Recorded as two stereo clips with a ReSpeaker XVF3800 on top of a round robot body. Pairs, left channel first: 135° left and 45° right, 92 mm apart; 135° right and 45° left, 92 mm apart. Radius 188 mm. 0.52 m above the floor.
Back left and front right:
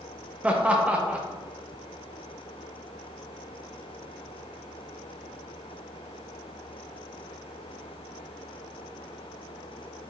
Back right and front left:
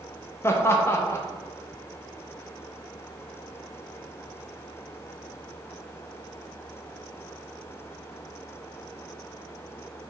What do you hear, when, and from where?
0.4 s laughter: 110° right, 0.7 m